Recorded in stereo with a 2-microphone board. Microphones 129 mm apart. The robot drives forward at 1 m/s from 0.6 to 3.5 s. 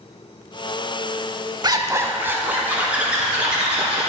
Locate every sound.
1.6 s a zipper: 35° right (ahead or behind), 0.5 m; by 4.1 s 10° right (ahead or behind), 2.5 m